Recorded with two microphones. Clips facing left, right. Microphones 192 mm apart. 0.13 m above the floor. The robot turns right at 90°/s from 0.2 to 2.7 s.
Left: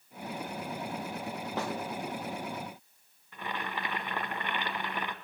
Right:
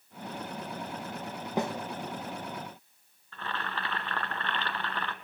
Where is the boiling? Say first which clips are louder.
Even; 15° left (ahead or behind), 1.5 m.